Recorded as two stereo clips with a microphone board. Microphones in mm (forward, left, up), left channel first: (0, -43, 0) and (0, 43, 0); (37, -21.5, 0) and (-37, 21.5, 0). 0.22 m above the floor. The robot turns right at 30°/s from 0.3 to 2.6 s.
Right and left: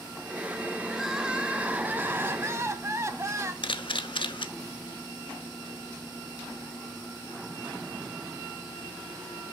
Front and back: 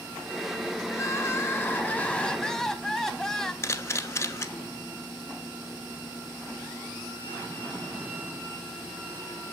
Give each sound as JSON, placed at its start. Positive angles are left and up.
{"t": 0.9, "sound": "crying", "azimuth_deg": 0, "distance_m": 0.7}
{"t": 3.6, "sound": "a camera shutter", "azimuth_deg": -85, "distance_m": 0.6}